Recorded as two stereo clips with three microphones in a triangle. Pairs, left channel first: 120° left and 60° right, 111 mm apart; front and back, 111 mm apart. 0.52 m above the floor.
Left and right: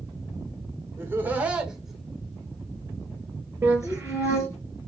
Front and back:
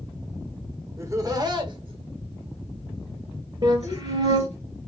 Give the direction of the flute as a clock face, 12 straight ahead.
4 o'clock.